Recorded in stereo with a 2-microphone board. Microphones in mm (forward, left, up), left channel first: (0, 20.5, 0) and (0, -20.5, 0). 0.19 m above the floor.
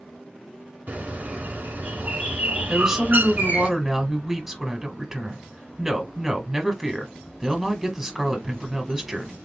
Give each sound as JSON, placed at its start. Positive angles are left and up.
{"t": 0.9, "sound": "a bird", "side_deg": -50, "distance_m": 1.1}
{"t": 2.7, "sound": "a woman speaking", "side_deg": -10, "distance_m": 1.1}